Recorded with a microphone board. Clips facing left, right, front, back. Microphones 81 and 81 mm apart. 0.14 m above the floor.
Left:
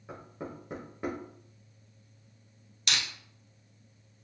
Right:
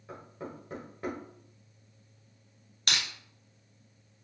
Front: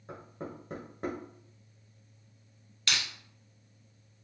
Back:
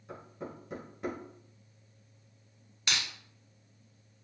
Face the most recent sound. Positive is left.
turn(degrees=-120)